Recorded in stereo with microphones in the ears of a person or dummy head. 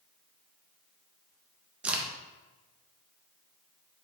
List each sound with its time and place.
1.8 s a crack: 10° right (ahead or behind), 0.6 m